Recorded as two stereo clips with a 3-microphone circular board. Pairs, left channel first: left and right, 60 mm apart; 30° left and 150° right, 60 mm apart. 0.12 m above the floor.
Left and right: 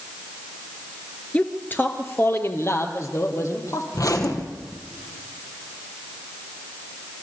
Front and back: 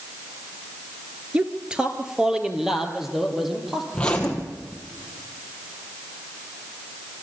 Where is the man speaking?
145° left, 1.5 m; by 3.8 s 125° left, 4 m.